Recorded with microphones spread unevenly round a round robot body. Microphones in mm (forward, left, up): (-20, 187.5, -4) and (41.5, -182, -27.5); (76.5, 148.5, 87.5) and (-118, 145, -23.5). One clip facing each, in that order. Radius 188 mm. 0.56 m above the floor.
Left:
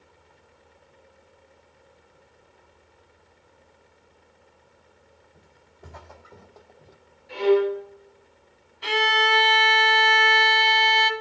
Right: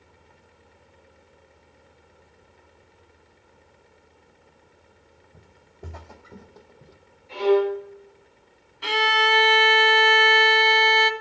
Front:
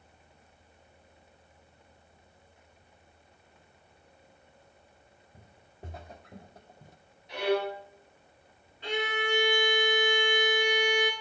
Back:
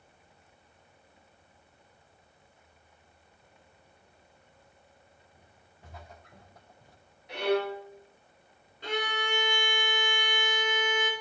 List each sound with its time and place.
5.3 s footsteps: 40° right, 1.6 m; by 7.0 s 5° left, 0.8 m
7.3 s a violin: 165° left, 7.5 m
8.8 s a violin: 100° right, 0.9 m